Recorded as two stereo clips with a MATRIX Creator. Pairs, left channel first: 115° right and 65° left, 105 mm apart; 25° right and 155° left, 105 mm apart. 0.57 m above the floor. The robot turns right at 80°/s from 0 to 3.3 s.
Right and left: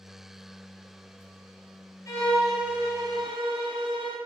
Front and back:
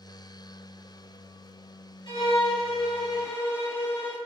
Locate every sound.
2.1 s a violin: 55° right, 0.6 m; by 4.2 s 45° left, 0.6 m